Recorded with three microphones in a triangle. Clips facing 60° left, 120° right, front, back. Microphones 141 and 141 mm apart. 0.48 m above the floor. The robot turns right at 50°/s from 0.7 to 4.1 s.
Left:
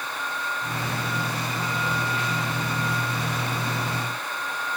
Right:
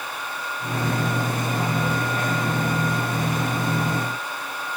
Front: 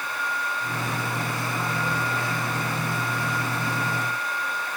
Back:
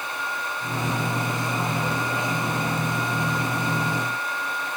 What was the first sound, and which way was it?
Only background noise.